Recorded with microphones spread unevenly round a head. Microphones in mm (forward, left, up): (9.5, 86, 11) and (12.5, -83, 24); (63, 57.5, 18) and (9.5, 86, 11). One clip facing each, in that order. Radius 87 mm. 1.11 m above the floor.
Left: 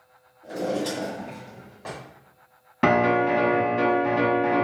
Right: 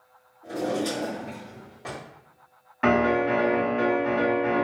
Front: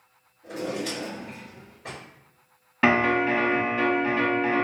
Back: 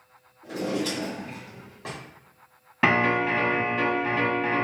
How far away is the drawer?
About 1.7 m.